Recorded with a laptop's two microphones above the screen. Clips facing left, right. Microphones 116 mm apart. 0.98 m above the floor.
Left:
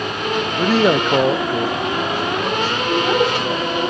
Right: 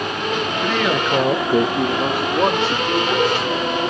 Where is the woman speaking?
85° left, 6.5 m.